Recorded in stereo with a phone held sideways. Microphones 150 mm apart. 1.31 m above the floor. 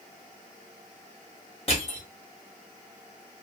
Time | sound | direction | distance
1.7 | crushing | 40° left (ahead or behind) | 1.6 m